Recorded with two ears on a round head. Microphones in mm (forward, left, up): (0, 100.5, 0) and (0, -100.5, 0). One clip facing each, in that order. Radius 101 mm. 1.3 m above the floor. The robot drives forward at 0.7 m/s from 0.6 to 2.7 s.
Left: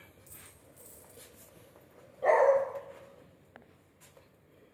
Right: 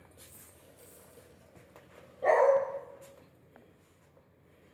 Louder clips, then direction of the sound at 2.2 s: Even; centre (ahead or behind).